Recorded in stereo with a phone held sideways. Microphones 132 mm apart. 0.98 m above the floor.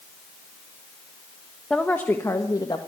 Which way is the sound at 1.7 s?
5° left (ahead or behind).